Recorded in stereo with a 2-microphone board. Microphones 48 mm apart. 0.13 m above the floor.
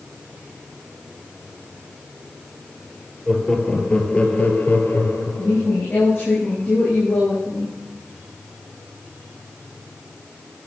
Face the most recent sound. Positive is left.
turn(degrees=55)  # may be behind; listen again after turning